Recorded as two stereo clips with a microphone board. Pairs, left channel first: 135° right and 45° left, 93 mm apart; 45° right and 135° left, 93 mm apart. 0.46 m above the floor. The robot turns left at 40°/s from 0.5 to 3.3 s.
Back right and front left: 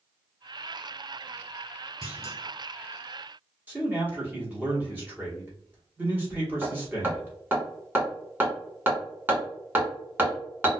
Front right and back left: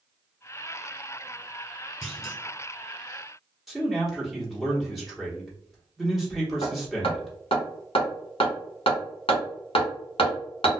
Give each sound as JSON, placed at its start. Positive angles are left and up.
{"t": 2.0, "sound": "a clunk", "azimuth_deg": -120, "distance_m": 1.5}
{"t": 3.7, "sound": "a man speaking", "azimuth_deg": 45, "distance_m": 0.9}
{"t": 6.6, "sound": "hammering", "azimuth_deg": -25, "distance_m": 1.3}